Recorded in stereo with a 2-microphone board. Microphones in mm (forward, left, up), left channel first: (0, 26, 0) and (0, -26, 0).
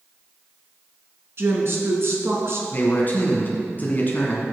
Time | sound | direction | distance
1.4 | a woman speaking | 55° right (ahead or behind) | 1.8 m
2.7 | a man speaking | 35° left (ahead or behind) | 1.5 m